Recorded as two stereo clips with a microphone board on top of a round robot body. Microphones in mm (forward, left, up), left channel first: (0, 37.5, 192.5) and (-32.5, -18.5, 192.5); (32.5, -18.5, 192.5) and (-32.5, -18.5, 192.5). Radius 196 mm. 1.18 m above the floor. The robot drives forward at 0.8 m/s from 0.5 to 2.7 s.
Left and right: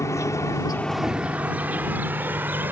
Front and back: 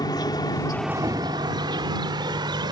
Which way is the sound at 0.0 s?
10° left.